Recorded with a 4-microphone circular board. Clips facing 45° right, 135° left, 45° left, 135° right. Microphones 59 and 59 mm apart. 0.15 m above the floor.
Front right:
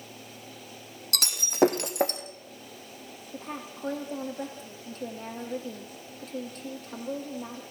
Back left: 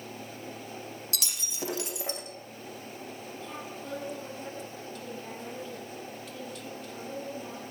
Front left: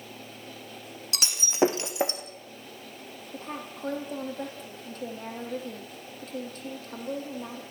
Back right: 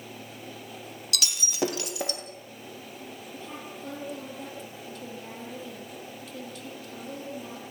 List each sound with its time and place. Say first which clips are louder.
1.1 s breaking glass: front right 11 dB, front left 4 dB; 15° right, 2.5 m
3.3 s a woman speaking: front right 5 dB, front left 5 dB; straight ahead, 5 m